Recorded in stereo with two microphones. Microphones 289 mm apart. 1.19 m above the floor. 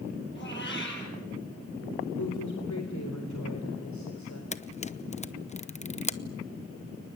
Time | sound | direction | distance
0.3 | a cat meowing | 40° left (ahead or behind) | 8 m
2.1 | a woman speaking | 75° left (ahead or behind) | 3.5 m
4.5 | a camera shutter | 25° left (ahead or behind) | 0.8 m